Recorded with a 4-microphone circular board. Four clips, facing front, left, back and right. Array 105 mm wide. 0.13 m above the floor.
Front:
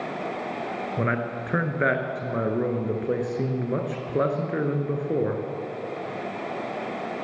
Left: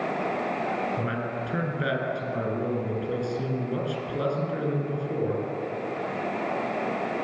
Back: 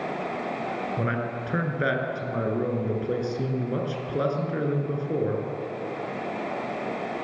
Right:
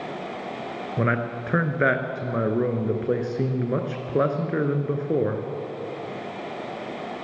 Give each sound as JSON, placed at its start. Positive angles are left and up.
{"t": 1.0, "sound": "a man speaking", "azimuth_deg": -70, "distance_m": 1.8}